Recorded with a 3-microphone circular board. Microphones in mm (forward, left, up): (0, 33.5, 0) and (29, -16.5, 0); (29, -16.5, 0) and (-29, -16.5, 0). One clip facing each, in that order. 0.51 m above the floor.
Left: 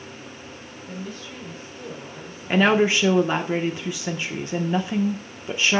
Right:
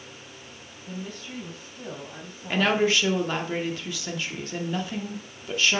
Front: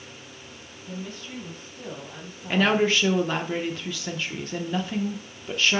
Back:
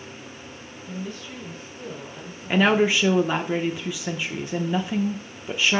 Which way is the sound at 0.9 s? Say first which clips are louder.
Left 1 dB, back 2 dB; 55° right.